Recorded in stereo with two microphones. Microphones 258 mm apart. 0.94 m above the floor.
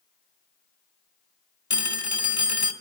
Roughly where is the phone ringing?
Left.